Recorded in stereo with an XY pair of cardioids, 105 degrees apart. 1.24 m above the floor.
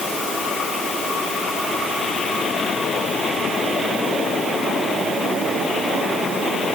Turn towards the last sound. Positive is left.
No sound to turn to.